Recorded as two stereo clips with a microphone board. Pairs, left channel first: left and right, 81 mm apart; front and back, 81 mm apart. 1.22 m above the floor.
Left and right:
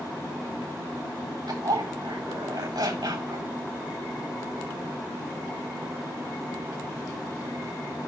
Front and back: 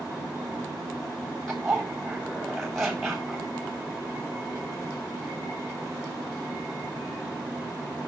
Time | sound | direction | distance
1.5 | a zipper | 85° right | 3.5 m